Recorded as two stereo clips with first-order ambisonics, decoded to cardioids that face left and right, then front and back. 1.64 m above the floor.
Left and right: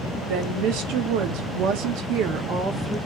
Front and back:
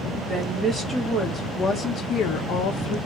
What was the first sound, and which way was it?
A woman speaking, 100° right.